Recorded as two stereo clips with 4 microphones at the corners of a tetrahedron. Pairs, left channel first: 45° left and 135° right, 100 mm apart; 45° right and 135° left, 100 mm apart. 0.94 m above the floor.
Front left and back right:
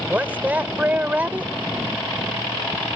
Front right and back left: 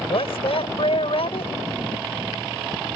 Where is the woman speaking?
60° right.